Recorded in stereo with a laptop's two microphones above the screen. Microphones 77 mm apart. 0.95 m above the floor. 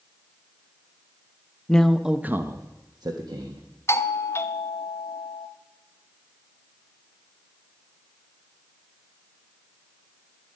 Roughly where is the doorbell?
Left.